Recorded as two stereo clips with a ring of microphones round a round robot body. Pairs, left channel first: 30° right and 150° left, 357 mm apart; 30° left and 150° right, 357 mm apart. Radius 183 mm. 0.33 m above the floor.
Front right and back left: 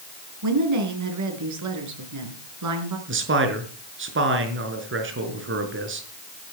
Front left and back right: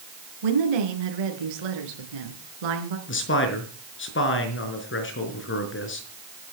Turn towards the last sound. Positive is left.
turn(degrees=90)